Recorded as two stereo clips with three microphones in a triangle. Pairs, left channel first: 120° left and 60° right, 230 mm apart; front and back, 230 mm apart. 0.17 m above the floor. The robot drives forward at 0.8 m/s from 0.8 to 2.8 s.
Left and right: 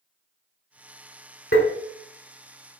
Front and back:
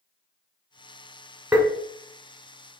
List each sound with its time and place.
1.5 s tapping: 95° left, 1.1 m; by 1.7 s 105° left, 1.1 m